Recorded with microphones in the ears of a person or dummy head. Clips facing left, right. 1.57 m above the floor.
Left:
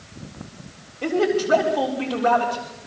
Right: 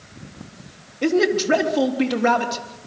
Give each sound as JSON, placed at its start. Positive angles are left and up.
{"t": 1.0, "sound": "a man speaking", "side_deg": -30, "distance_m": 3.5}